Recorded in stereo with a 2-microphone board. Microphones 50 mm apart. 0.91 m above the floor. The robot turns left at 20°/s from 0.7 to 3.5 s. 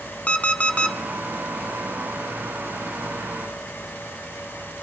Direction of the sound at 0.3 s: 25° left (ahead or behind).